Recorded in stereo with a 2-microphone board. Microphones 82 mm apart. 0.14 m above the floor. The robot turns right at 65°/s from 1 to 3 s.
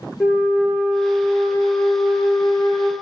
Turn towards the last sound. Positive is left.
turn(degrees=130)